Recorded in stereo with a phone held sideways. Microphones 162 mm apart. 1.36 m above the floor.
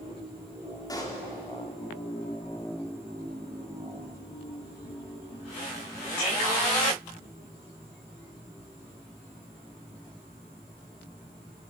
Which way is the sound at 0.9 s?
25° left (ahead or behind).